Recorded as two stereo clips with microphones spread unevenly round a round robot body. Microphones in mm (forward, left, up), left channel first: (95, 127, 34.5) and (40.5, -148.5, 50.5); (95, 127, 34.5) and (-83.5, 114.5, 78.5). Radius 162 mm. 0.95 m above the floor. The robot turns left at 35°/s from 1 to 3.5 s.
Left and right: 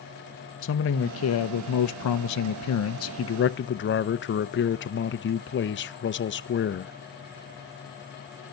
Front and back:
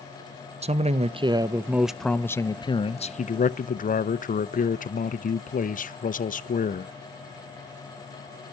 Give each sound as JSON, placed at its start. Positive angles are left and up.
{"t": 0.6, "sound": "a man speaking", "azimuth_deg": 120, "distance_m": 0.8}